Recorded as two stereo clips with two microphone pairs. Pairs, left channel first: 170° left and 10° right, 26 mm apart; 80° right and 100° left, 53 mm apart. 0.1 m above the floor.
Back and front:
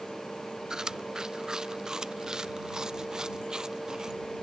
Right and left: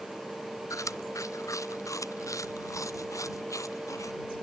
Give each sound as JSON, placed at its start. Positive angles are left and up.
{"t": 0.7, "sound": "chewing", "azimuth_deg": -75}